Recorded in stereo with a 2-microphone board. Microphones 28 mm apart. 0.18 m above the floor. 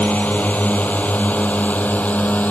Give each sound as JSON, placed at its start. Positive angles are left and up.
{"t": 0.0, "sound": "a drone", "side_deg": 70}